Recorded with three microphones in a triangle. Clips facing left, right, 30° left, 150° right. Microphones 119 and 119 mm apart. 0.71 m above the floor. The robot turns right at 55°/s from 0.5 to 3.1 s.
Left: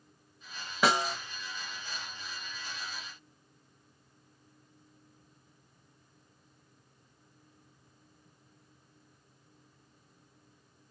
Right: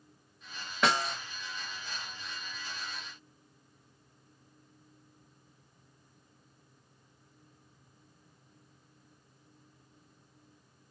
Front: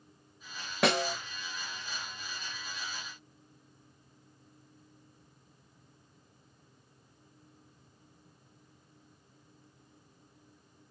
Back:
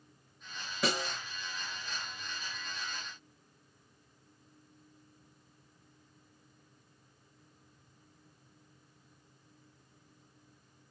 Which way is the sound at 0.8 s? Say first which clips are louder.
Left 2 dB, front 6 dB; 10° left.